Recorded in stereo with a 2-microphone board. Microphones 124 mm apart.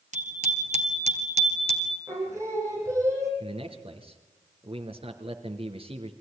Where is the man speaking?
50° right (ahead or behind), 3.5 m.